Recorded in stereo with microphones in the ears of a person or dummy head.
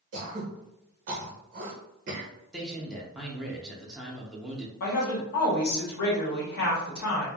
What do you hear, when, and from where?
0.1 s throat clearing: 40° right (ahead or behind), 0.6 m
2.5 s a man speaking: centre (ahead or behind), 0.5 m
4.8 s a woman speaking: 55° left (ahead or behind), 1.0 m